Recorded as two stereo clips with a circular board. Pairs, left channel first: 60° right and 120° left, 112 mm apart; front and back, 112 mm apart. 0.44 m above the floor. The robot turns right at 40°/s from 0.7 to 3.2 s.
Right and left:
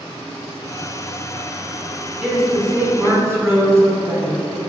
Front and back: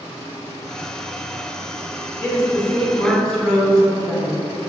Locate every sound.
2.2 s a woman speaking: 40° left, 1.0 m; by 4.4 s 80° left, 1.0 m